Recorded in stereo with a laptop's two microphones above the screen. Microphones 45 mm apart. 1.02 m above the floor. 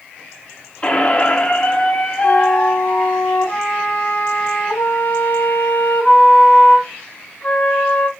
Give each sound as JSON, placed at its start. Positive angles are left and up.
{"t": 0.8, "sound": "a squeak", "side_deg": 25, "distance_m": 0.8}
{"t": 2.2, "sound": "a flute", "side_deg": 45, "distance_m": 3.5}